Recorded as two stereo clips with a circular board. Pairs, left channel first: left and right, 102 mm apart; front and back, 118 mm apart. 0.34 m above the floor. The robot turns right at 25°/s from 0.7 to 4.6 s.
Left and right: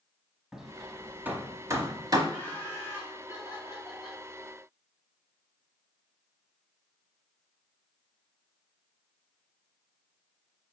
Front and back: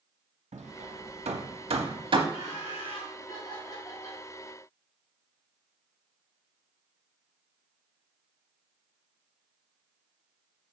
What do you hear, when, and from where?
0.5 s hammering: 175° right, 0.8 m; by 2.2 s 135° right, 0.8 m
2.3 s laughter: 15° left, 2.5 m; by 4.2 s 65° left, 2.5 m